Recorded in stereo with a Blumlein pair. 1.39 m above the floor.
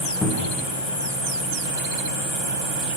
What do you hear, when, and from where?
0.2 s a cupboard door: 20° left, 0.6 m